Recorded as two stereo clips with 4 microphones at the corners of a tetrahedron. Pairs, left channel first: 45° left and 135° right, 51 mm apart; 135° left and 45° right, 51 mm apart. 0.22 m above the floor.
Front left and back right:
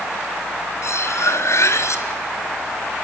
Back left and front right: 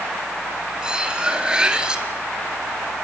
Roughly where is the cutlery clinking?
Ahead left.